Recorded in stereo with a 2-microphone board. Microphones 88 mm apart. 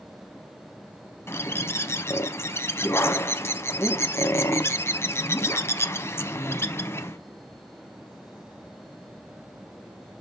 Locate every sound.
1.3 s a bird: 30° left (ahead or behind), 0.7 m